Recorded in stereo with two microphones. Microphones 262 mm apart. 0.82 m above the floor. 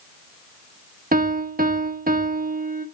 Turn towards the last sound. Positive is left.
turn(degrees=-35)  # may be behind; listen again after turning